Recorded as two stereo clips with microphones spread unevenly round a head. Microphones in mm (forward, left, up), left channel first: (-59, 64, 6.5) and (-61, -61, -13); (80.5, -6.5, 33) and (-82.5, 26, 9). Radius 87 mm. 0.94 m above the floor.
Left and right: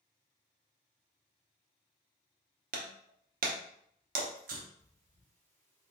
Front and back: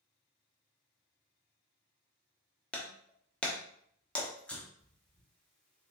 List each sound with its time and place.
2.7 s breaking glass: 95° right, 0.9 m
4.8 s breathing: 105° right, 2.5 m